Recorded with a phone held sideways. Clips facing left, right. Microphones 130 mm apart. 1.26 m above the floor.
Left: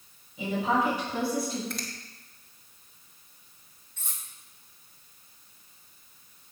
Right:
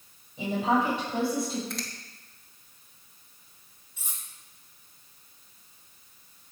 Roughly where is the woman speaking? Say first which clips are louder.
Right 1 dB; right.